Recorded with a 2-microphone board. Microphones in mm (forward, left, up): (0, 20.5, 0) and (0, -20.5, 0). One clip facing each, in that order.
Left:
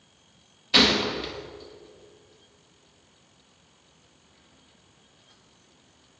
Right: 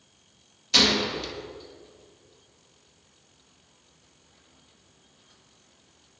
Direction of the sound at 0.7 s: 20° left (ahead or behind).